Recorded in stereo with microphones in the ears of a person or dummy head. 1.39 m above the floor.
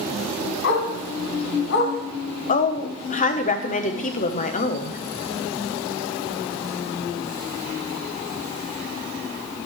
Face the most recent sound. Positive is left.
turn(degrees=35)  # may be behind; listen again after turning